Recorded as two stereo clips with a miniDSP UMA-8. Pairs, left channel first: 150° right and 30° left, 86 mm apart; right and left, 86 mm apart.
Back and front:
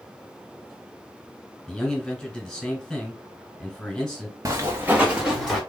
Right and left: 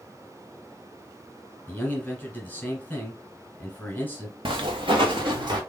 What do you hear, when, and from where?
1.7 s a man speaking: 85° right, 1.3 m
4.5 s footsteps: 80° left, 1.0 m; by 5.6 s 120° left, 1.7 m